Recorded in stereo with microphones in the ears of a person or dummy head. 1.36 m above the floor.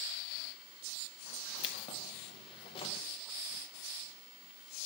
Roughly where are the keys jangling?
Left.